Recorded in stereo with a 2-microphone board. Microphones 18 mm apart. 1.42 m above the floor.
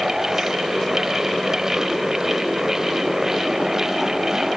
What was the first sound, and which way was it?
Only background noise.